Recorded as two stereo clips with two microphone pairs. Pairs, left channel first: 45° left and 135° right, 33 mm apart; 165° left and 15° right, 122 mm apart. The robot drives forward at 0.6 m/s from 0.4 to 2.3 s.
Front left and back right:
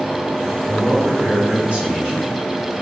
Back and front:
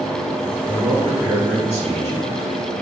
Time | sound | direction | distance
0.6 | a man speaking | 65° right | 1.0 m